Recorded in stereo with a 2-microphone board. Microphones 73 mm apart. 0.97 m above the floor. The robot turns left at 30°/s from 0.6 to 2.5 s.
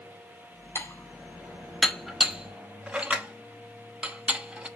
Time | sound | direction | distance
0.8 | dishes clattering | 35° left (ahead or behind) | 1.0 m